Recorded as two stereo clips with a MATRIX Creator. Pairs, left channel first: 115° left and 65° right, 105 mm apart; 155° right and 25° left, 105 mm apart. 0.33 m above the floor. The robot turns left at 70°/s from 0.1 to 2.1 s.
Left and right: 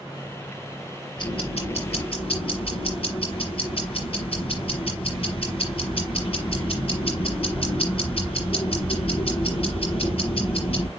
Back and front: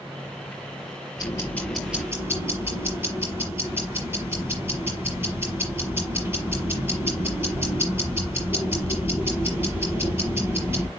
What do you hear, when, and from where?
1.2 s ticking: 155° left, 5.5 m; by 10.9 s 90° left, 5.5 m